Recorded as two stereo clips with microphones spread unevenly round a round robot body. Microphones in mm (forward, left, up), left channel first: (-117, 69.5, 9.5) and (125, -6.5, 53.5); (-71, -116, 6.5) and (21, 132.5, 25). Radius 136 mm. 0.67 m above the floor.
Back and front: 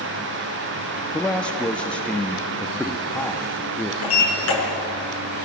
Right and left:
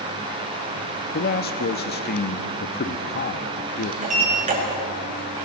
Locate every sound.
1.1 s a man speaking: 125° right, 0.9 m
4.0 s a sliding door: 135° left, 6 m